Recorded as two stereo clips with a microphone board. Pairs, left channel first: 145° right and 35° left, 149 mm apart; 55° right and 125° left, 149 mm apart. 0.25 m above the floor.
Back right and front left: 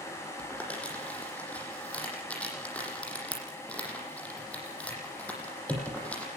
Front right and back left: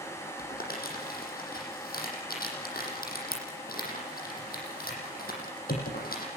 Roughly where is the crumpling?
Ahead right.